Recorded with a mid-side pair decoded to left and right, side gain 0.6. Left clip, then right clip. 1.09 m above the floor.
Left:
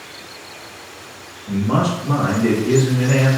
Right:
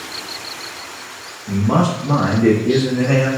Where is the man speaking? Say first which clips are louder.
Right 2 dB; 20° right, 0.8 m; by 3.3 s 75° right, 1.1 m.